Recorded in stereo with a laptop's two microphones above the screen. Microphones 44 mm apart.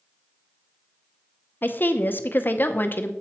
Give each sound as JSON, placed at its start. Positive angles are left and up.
{"t": 1.6, "sound": "a woman speaking", "side_deg": 45, "distance_m": 0.7}